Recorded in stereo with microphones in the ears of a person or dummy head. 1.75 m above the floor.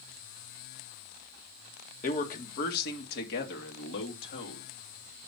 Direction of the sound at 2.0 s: 45° left (ahead or behind).